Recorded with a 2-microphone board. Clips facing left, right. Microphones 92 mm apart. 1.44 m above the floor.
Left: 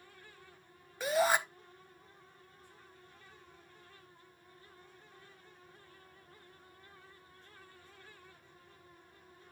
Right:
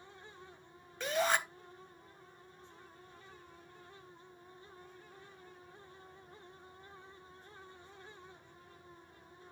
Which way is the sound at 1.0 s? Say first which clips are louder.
Left 3 dB; 10° left (ahead or behind).